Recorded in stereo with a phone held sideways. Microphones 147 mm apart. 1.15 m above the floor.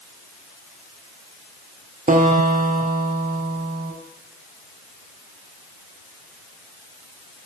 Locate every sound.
2.1 s a guitar: 65° right (ahead or behind), 0.6 m